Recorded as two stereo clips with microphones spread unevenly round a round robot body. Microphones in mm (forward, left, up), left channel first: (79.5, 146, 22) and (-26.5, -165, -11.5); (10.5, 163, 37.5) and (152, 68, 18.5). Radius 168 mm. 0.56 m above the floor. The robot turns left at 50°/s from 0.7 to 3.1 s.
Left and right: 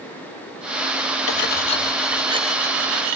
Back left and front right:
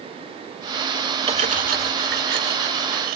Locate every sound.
1.3 s cutlery clinking: 20° left, 1.1 m; by 3.2 s 70° right, 1.1 m